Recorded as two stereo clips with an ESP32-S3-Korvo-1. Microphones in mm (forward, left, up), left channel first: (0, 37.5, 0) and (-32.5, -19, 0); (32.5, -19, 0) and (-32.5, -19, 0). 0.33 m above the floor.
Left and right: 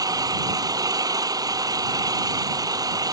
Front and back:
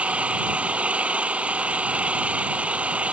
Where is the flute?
I don't hear a flute.